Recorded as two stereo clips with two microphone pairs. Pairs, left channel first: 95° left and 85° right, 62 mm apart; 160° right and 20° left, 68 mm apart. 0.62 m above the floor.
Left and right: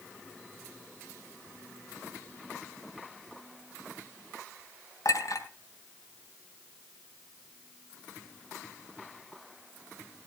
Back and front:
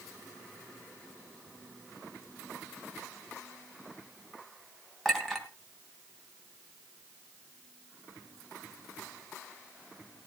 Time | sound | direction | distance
5.0 | a clink | 115° left | 3 m